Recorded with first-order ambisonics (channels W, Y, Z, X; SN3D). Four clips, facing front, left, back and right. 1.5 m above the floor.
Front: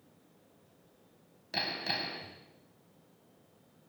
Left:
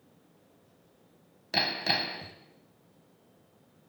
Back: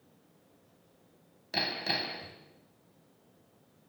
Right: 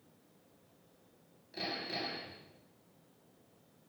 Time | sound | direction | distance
1.5 | hammering | 95° left | 3 m